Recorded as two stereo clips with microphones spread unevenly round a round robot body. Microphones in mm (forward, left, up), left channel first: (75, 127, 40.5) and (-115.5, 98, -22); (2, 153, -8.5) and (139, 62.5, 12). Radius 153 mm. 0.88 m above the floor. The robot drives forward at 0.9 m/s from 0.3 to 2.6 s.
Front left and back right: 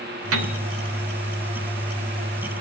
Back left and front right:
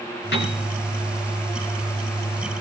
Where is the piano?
155° right, 4 m.